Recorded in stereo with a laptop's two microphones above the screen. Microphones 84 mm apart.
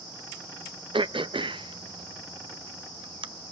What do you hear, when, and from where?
0.9 s throat clearing: 70° right (ahead or behind), 0.6 m